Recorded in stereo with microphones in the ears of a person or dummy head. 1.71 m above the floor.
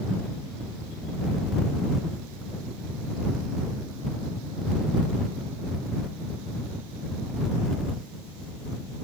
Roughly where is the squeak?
I don't hear a squeak.